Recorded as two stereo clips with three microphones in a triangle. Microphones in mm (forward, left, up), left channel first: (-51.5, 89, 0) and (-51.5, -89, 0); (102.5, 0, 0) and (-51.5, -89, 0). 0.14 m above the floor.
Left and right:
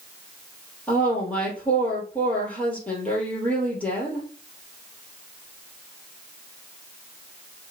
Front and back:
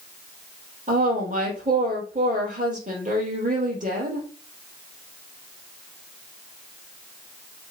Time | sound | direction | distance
0.9 | a woman speaking | 170° left | 3 m